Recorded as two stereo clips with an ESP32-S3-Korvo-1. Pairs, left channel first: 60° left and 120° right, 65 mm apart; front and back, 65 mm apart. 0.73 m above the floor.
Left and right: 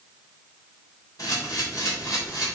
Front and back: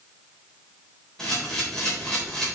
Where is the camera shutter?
80° left, 3.5 m.